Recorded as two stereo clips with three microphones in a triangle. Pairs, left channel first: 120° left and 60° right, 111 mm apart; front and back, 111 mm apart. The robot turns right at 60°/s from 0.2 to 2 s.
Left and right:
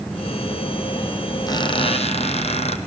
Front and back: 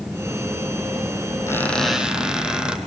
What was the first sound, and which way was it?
A squeak, 65° left.